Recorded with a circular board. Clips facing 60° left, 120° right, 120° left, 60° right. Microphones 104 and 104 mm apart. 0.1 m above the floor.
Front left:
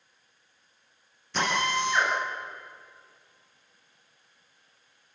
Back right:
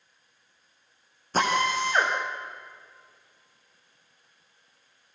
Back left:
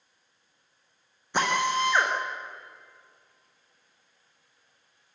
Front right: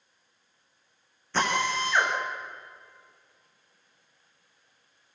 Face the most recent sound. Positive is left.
turn(degrees=-165)